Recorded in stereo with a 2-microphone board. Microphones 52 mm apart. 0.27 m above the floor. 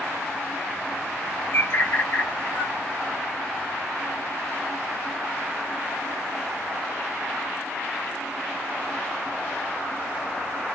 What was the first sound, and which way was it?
A bird, 45° left (ahead or behind).